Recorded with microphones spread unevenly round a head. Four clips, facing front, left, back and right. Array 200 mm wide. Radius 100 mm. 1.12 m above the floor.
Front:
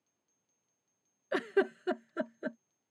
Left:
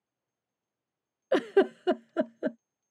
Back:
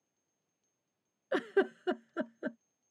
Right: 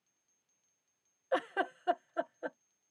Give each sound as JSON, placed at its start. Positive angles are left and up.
{"t": 1.3, "sound": "a giggle", "azimuth_deg": 85}